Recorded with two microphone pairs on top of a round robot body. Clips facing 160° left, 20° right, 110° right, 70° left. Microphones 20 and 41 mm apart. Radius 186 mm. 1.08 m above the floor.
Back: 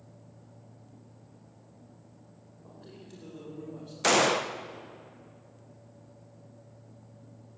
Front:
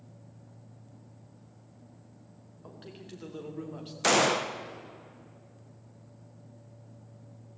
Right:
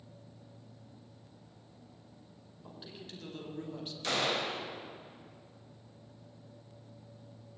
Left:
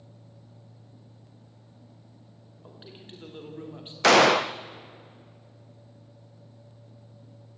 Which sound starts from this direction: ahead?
A man speaking, at 2.6 s.